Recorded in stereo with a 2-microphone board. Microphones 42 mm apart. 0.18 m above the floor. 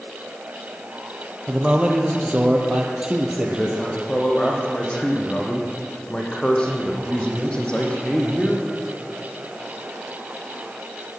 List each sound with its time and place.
1.5 s a man speaking: 20° right (ahead or behind), 4.5 m
3.3 s a man speaking: 20° left (ahead or behind), 6.5 m